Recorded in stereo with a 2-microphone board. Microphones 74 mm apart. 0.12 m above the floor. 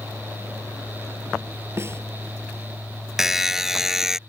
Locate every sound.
1.8 s a snare drum: 35° right (ahead or behind)
3.2 s a buzzer: 5° right (ahead or behind)